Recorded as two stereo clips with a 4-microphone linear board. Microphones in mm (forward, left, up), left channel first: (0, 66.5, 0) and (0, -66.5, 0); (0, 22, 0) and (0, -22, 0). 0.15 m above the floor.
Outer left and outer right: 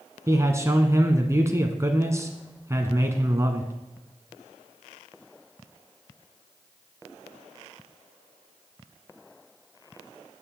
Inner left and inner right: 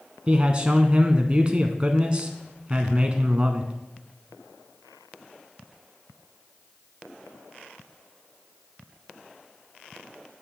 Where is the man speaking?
25° right (ahead or behind), 1.1 m.